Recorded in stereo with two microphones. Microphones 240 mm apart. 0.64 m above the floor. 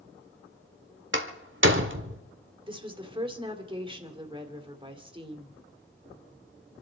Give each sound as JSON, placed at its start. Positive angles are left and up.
{"t": 1.1, "sound": "a door slam", "side_deg": -55, "distance_m": 1.7}
{"t": 2.7, "sound": "a woman speaking", "side_deg": -20, "distance_m": 2.0}